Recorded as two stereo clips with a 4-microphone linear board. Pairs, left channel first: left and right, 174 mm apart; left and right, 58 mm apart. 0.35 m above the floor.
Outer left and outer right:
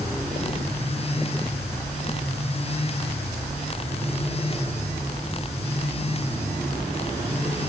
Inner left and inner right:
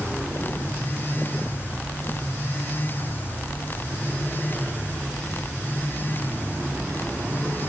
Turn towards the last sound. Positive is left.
No sound to turn to.